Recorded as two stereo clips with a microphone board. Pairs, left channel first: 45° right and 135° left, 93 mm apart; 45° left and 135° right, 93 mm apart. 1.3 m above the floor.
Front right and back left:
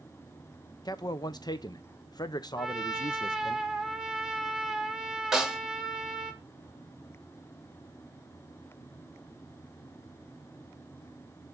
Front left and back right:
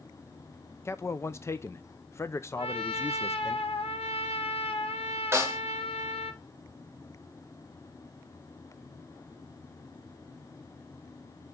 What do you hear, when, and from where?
0.8 s a man speaking: 10° right, 0.6 m
2.6 s a trumpet: 50° left, 0.8 m
5.3 s a snare drum: 150° right, 1.1 m